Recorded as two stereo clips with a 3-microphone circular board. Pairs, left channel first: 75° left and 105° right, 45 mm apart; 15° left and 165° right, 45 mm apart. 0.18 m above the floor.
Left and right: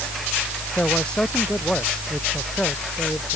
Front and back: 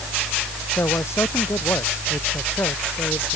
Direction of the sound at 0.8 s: 5° left.